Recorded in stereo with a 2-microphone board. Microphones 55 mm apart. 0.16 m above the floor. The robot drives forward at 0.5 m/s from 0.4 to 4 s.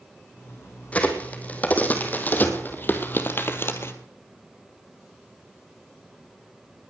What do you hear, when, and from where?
0.9 s a crack: 25° left (ahead or behind), 3 m; by 3.9 s 50° left (ahead or behind), 1.7 m